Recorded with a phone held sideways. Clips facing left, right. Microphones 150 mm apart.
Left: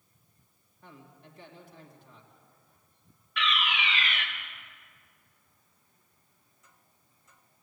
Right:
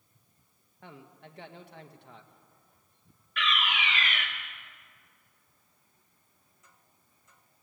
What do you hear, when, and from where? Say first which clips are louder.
0.8 s a man speaking: right 3 dB; 80° right, 1.7 m
3.4 s a fire alarm: even; 50° right (ahead or behind), 2 m